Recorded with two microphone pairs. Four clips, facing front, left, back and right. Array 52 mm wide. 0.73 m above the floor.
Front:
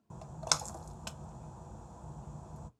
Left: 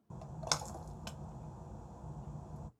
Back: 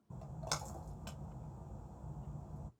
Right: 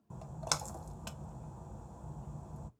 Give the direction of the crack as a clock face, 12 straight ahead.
No crack in this recording.